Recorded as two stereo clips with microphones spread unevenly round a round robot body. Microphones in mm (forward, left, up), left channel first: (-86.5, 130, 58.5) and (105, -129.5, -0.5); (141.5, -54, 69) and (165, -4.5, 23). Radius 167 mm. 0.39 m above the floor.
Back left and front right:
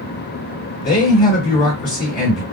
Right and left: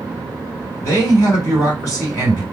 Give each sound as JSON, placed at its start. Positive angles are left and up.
{"t": 0.8, "sound": "a man speaking", "azimuth_deg": 165, "distance_m": 2.0}